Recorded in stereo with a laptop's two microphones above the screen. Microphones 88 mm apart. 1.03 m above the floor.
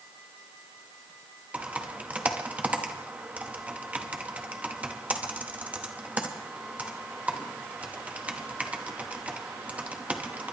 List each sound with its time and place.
1.5 s typing on a keyboard: 15° right (ahead or behind), 0.8 m